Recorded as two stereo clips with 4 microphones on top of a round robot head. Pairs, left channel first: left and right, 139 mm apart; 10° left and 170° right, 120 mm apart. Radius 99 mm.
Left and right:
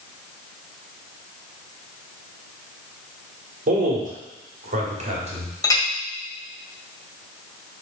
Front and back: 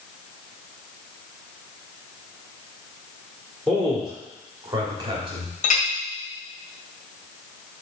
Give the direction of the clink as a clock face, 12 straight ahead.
11 o'clock.